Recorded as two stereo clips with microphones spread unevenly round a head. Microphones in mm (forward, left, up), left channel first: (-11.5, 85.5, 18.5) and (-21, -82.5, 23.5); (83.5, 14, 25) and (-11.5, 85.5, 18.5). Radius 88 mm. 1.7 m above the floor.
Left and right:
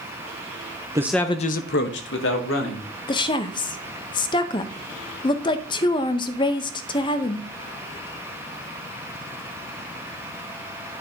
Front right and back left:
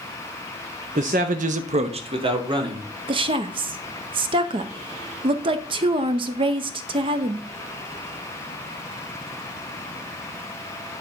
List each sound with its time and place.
0.9 s a man speaking: 160° right, 0.7 m; by 2.9 s 90° left, 2.5 m
3.1 s a woman speaking: 135° left, 0.6 m